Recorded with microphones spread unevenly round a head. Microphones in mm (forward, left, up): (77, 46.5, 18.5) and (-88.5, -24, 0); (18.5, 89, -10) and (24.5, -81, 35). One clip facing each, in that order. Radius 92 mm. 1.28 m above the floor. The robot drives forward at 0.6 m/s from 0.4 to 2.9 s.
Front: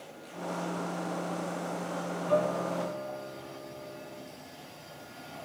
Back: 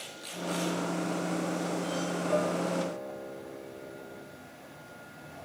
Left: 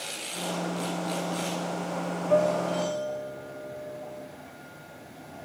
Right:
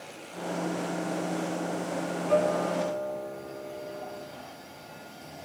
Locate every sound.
2.3 s a guitar: 100° right, 6 m; by 4.3 s 105° right, 6 m